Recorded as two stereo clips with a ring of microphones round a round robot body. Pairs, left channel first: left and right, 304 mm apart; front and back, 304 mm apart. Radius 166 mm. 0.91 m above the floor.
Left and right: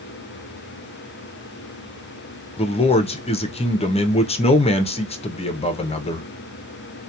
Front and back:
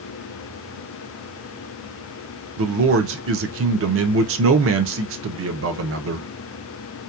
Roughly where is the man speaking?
Behind left.